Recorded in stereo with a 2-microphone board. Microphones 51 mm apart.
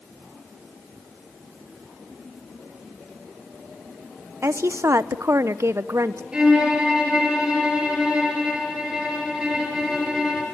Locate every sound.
4.4 s a woman speaking: 65° right (ahead or behind), 0.8 m
6.3 s a violin: 15° right (ahead or behind), 6 m